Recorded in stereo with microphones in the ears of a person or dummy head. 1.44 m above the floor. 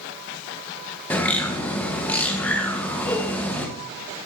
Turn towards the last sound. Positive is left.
turn(degrees=10)  # may be behind; listen again after turning